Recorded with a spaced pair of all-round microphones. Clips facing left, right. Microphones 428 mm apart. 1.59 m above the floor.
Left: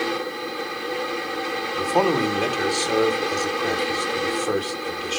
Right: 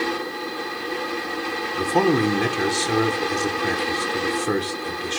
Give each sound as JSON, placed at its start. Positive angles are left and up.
{"t": 0.0, "sound": "a fan", "side_deg": -5, "distance_m": 1.1}
{"t": 1.8, "sound": "a man speaking", "side_deg": -35, "distance_m": 1.0}